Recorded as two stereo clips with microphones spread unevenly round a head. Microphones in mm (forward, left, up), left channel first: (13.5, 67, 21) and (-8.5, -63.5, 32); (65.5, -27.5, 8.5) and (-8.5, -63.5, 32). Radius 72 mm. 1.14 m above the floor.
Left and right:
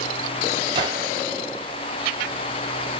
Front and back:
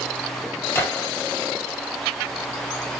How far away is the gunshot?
About 2.5 m.